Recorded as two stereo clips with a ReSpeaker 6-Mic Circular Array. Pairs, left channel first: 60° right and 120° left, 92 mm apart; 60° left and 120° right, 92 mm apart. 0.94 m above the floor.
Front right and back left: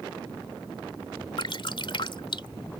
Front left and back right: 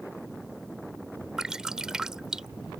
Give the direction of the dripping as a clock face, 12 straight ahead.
1 o'clock.